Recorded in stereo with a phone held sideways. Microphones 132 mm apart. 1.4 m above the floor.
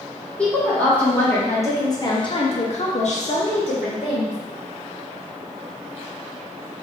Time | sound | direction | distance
0.4 | a woman speaking | 10° left (ahead or behind) | 1.5 m